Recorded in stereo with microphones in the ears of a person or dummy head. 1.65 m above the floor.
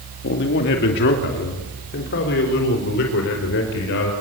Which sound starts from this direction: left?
A man speaking, at 0.2 s.